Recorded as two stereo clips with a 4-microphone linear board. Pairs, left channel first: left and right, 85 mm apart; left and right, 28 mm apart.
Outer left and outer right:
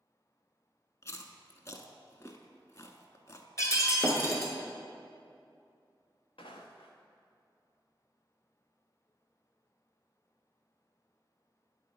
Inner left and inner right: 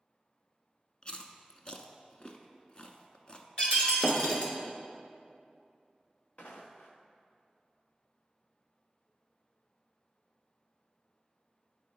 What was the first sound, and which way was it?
Chewing, 35° left (ahead or behind).